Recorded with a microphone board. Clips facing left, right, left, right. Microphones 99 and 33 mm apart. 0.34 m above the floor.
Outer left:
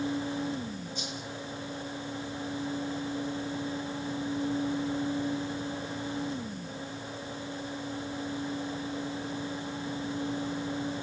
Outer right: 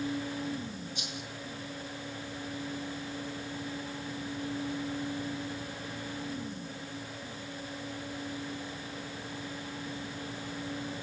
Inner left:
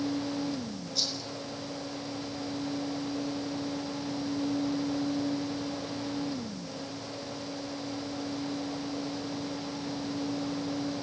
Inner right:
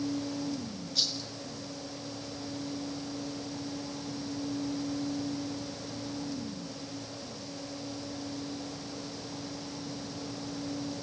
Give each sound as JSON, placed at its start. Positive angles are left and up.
{"t": 0.9, "sound": "a rattle", "side_deg": -65, "distance_m": 4.5}